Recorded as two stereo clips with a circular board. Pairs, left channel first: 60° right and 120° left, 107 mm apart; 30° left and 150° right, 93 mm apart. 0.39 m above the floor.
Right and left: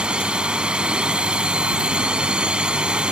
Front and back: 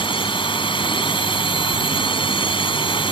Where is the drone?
40° left.